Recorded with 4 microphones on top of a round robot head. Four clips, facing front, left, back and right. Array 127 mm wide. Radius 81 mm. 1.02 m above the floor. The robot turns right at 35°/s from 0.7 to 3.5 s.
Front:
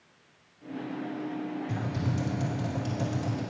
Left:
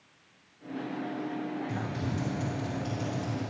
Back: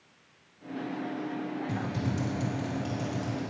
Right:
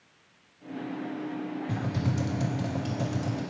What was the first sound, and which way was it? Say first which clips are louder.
Typing on a keyboard: right 3 dB, even; 110° right.